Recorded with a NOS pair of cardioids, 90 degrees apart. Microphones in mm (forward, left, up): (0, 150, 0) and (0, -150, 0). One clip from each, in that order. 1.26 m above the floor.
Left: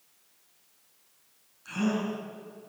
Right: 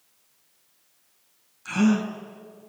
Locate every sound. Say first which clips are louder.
1.6 s a gasp: right 6 dB; 60° right, 4.5 m